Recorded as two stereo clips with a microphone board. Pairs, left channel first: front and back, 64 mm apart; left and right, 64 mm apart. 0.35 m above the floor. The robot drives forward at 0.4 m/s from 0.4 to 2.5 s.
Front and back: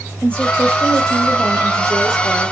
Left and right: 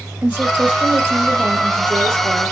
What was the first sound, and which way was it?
A woman speaking, 50° right.